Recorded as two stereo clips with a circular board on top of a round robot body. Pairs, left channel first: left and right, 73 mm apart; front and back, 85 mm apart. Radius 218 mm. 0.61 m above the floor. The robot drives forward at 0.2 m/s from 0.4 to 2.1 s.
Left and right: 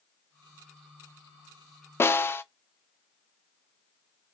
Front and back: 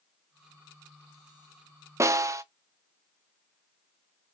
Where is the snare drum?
135° left, 0.5 m.